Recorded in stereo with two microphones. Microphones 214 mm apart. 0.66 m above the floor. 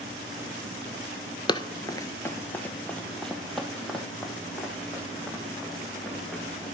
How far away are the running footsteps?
About 0.6 m.